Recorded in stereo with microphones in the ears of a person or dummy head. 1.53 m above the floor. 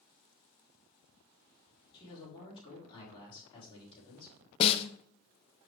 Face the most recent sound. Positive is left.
turn(degrees=30)  # may be behind; listen again after turning